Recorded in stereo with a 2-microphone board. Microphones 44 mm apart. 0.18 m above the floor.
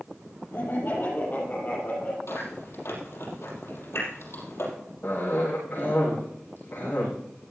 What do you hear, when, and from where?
0.5 s laughter: 55° left (ahead or behind), 4.5 m; by 2.2 s 40° left (ahead or behind), 6 m
2.3 s chewing: 75° left (ahead or behind), 5 m
5.0 s a cough: 55° left (ahead or behind), 7.5 m